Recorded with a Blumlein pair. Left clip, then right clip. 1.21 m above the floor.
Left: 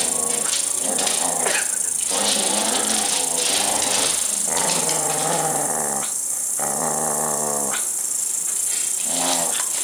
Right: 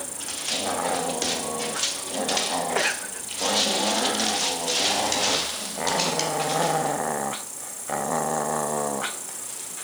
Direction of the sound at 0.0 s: 60° left.